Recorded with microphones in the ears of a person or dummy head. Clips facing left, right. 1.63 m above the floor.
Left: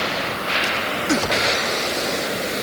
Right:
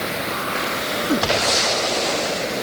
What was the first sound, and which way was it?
Only background noise.